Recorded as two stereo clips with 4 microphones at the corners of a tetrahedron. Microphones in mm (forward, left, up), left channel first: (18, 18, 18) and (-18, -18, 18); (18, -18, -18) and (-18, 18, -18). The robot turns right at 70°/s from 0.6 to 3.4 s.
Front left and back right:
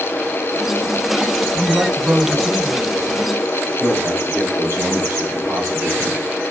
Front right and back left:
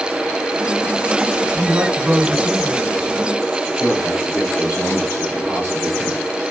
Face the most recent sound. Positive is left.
turn(degrees=-165)